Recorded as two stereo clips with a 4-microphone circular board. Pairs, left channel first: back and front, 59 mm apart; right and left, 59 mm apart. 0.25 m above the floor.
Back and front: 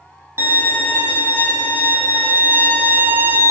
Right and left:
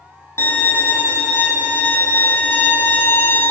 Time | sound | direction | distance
0.4 | a violin | 50° right | 2.5 m